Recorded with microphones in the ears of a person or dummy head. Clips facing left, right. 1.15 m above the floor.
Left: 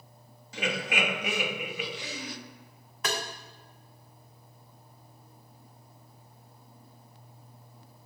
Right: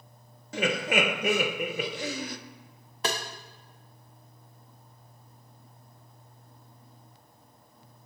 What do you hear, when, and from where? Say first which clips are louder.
0.5 s laughter: right 5 dB; 45° right (ahead or behind), 0.8 m
3.0 s tapping: right 1 dB; 25° right (ahead or behind), 0.6 m